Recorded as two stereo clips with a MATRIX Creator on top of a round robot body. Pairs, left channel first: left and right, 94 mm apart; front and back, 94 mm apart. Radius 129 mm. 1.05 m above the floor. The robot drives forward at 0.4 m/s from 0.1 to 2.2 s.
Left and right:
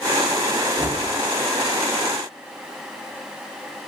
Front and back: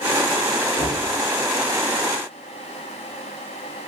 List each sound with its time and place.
0.8 s knocking: 20° right, 0.8 m